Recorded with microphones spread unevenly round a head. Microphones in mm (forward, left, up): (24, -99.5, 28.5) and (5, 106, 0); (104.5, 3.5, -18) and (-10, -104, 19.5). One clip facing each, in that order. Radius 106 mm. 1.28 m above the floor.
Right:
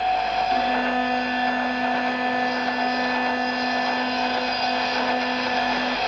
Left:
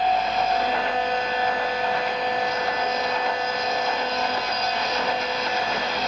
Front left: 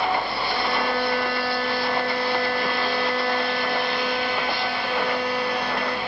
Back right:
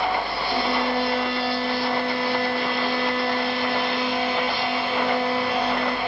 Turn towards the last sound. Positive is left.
turn(degrees=-70)